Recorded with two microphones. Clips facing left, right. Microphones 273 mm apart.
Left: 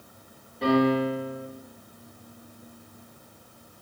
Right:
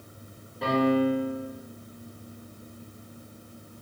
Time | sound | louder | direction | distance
0.6 | a piano | left 1 dB | centre (ahead or behind) | 1.4 m